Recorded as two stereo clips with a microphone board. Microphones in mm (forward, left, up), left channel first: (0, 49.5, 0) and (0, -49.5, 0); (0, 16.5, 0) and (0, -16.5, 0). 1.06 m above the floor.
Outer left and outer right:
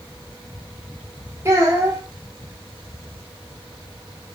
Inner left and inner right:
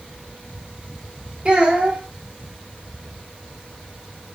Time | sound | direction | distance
1.4 | a child speaking | 25° right (ahead or behind) | 1.7 m